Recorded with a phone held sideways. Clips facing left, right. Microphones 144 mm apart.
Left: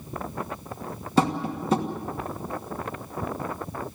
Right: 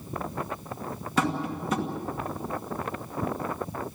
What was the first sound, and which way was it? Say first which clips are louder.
Tapping: left 4 dB; 30° left (ahead or behind).